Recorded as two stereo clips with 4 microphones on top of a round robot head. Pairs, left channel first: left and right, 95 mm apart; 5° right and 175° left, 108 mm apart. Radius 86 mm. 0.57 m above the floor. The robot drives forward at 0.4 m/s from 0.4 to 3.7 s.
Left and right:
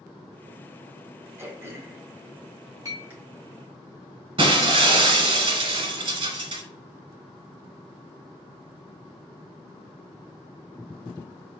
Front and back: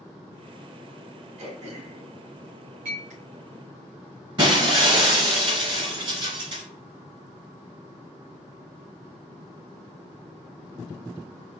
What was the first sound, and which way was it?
Throat clearing, 155° right.